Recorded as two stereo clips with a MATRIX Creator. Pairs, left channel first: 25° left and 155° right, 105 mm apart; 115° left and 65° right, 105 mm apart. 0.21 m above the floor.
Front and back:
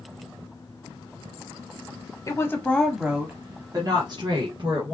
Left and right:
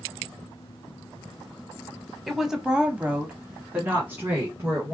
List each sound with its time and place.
2.3 s a woman speaking: 20° left, 1.2 m; by 4.9 s 135° right, 2.5 m